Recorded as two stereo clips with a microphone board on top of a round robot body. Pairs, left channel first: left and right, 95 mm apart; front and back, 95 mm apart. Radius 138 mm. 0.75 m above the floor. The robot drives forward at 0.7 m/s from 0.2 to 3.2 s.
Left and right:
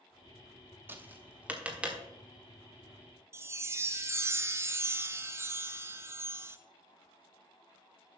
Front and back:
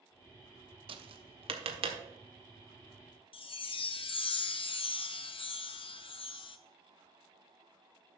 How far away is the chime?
About 0.7 m.